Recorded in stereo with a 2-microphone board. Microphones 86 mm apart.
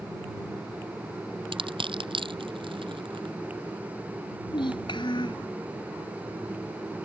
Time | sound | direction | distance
1.5 | crushing | 80° right | ?
4.5 | a child speaking | 65° left (ahead or behind) | ?